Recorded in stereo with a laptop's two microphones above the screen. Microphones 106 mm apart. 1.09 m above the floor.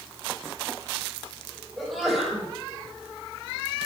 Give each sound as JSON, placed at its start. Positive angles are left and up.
{"t": 1.8, "sound": "a sneeze", "side_deg": 0, "distance_m": 7.5}